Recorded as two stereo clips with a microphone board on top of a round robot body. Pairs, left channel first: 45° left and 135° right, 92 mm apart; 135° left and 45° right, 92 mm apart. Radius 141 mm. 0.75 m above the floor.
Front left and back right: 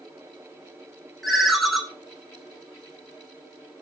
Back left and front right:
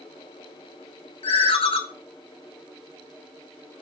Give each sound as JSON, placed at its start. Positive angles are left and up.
{"t": 1.2, "sound": "a ringtone", "azimuth_deg": 135, "distance_m": 1.3}